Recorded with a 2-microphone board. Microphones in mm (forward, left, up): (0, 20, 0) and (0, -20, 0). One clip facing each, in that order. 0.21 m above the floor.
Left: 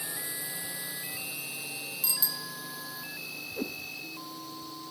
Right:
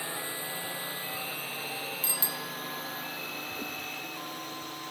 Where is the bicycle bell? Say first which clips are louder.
Right 2 dB; 35° right (ahead or behind).